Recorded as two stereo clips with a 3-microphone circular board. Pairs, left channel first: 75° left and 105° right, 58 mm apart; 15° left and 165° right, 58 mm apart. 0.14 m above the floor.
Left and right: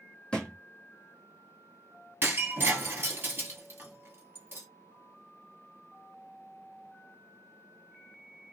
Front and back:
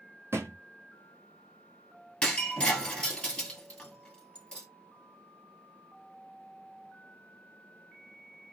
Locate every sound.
0.3 s a thud: 150° left, 1.0 m
2.2 s breaking glass: 55° right, 1.5 m